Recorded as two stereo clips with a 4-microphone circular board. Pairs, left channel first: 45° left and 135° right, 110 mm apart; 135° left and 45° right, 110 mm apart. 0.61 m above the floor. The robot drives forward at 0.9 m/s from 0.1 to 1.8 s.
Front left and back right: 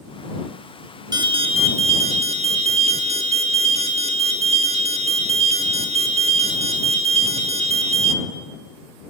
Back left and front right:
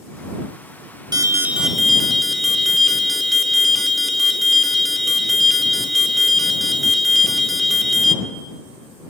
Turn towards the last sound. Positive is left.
turn(degrees=-135)